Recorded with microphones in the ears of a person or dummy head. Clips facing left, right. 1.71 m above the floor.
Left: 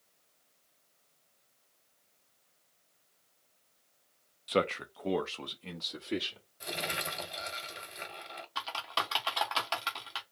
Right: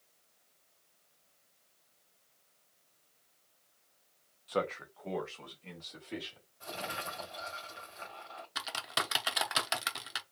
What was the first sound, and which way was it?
A man speaking, 25° left (ahead or behind).